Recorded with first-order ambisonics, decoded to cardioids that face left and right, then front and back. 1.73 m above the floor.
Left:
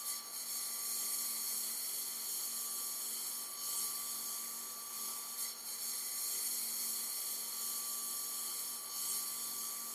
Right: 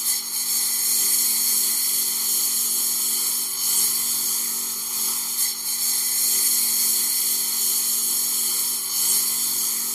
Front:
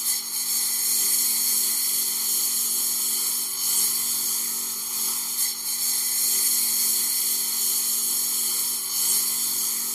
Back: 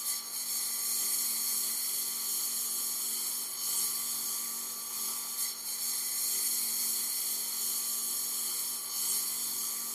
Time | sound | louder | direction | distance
0.0 | a lawn mower | right 18 dB, front 9 dB | 55° right | ?